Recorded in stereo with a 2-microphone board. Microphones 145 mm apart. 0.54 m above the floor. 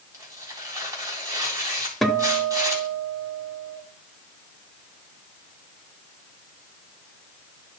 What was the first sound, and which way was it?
Tearing paper, 25° right (ahead or behind).